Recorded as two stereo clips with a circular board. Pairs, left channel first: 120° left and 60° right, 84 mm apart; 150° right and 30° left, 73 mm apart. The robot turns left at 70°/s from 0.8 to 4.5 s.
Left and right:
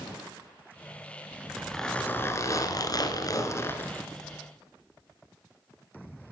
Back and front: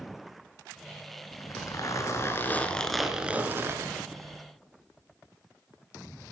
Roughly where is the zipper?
Behind right.